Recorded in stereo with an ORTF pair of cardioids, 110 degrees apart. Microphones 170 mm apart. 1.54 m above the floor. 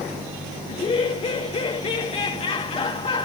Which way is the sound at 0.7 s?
40° left.